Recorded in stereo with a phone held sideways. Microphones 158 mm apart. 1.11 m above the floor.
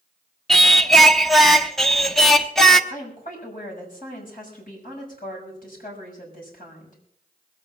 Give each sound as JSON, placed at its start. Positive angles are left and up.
{"t": 0.5, "sound": "singing", "side_deg": 0, "distance_m": 0.8}
{"t": 2.9, "sound": "a woman speaking", "side_deg": 60, "distance_m": 6.0}